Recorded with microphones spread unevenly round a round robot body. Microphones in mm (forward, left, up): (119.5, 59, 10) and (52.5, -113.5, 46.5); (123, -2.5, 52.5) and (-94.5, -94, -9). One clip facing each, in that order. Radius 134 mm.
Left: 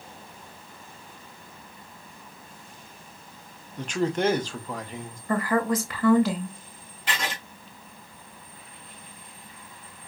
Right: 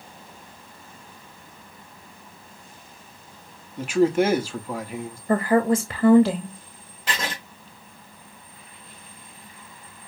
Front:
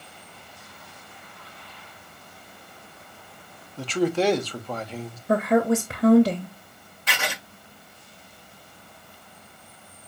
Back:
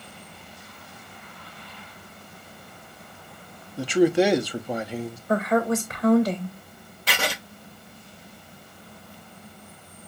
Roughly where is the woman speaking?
Ahead right.